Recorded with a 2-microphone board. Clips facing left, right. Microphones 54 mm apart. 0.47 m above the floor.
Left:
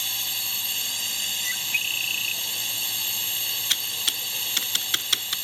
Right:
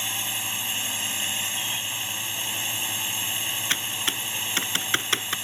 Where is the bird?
65° left (ahead or behind).